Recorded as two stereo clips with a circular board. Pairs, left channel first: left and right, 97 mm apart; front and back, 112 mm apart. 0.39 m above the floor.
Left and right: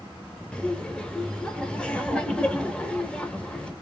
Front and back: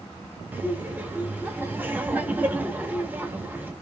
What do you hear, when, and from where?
0.5 s laughter: 150° left, 0.8 m